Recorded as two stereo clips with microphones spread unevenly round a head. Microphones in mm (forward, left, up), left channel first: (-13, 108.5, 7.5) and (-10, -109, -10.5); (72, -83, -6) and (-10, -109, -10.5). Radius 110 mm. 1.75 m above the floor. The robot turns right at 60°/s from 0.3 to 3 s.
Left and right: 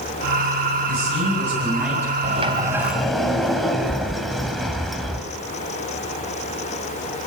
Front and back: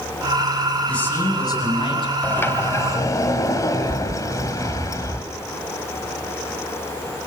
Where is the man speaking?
60° right, 9 m; by 2.1 s 15° left, 9 m.